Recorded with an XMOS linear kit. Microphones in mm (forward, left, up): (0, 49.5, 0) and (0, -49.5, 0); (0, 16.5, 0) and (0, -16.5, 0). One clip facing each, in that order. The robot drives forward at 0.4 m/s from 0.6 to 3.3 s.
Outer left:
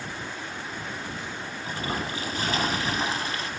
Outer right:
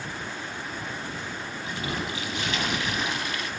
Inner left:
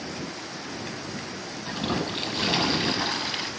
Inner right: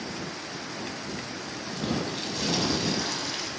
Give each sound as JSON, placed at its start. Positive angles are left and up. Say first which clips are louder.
{"t": 1.7, "sound": "a toilet flushing", "louder": "outer left 1 dB, inner left 2 dB", "side_deg": 40, "distance_m": 1.2}